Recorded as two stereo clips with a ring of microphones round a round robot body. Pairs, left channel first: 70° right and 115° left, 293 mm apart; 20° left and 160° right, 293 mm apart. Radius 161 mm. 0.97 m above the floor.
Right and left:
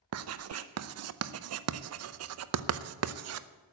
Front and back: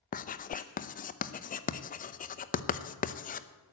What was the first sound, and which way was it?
Writing, 85° left.